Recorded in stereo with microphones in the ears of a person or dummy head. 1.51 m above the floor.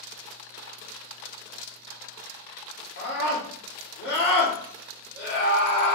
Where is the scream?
70° left (ahead or behind), 3.5 m.